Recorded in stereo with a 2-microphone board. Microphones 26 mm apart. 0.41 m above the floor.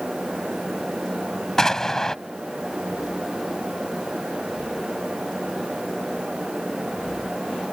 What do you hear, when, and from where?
1.6 s an explosion: 20° left (ahead or behind)